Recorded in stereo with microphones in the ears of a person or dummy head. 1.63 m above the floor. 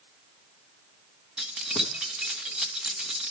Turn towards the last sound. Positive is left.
turn(degrees=-5)  # may be behind; listen again after turning